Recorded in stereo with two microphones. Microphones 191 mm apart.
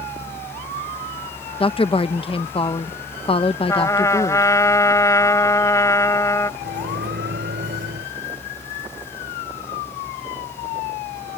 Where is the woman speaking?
30° left (ahead or behind).